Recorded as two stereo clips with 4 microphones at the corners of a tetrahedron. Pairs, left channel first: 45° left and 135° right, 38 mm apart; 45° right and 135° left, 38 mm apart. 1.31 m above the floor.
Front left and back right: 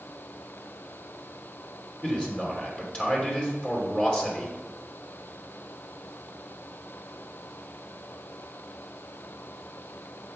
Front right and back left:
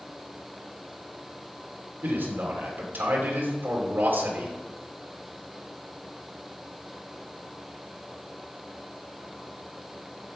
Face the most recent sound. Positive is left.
turn(degrees=110)